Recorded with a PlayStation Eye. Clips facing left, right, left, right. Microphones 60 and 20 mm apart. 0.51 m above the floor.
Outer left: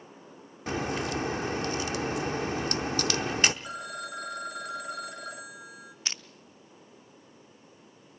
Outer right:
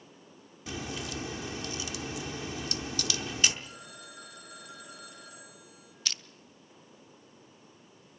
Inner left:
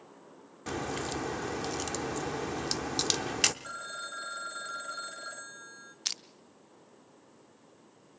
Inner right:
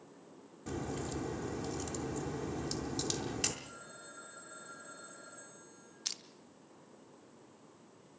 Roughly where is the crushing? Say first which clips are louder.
Even, inner left 6 dB; left.